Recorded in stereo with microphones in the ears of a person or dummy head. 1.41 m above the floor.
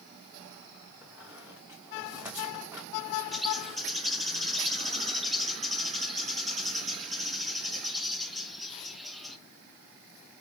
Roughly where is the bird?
Centre.